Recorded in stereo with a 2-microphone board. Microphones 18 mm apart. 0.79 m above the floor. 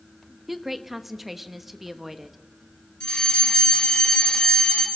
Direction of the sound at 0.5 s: 5° right (ahead or behind).